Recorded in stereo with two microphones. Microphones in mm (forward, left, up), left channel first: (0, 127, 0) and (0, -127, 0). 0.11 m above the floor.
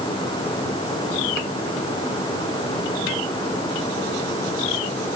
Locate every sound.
Only background noise.